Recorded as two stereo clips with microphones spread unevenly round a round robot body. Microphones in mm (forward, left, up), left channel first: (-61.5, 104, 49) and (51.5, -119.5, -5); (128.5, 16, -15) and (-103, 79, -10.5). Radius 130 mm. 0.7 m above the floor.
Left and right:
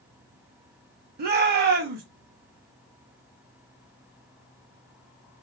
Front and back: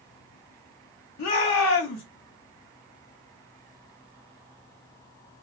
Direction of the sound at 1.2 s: 35° right.